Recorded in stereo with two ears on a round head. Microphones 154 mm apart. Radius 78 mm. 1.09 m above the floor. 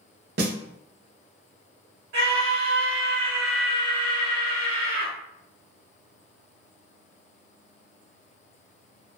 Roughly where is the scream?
Right.